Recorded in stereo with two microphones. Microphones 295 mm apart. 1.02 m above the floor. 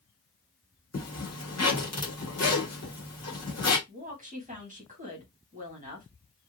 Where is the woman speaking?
25° right (ahead or behind), 1.3 m.